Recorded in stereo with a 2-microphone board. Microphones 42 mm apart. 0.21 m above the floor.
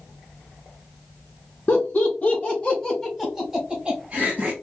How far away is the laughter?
About 2.5 m.